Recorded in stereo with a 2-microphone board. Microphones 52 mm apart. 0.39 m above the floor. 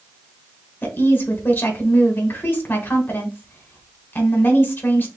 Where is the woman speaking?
45° left (ahead or behind), 1.1 m.